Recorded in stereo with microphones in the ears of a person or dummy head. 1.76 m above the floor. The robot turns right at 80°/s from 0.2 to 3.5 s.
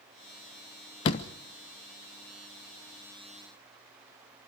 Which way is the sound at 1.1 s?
25° left (ahead or behind).